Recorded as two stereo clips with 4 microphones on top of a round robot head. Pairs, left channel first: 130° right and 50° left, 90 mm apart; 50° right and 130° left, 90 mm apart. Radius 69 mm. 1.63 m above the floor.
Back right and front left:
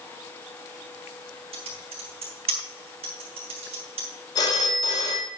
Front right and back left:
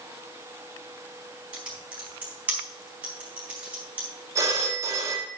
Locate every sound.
1.5 s typing on a keyboard: 55° left, 4 m
4.3 s a phone ringing: 175° right, 2 m